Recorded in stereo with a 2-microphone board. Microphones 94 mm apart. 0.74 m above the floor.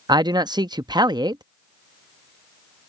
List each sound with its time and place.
0.1 s a man speaking: 50° right (ahead or behind)